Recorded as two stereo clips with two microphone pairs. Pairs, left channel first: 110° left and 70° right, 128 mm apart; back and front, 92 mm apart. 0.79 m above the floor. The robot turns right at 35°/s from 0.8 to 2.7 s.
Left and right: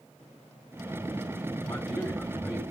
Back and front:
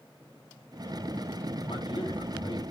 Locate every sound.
1.6 s a man speaking: 175° left, 3.5 m; by 2.6 s 150° right, 3.5 m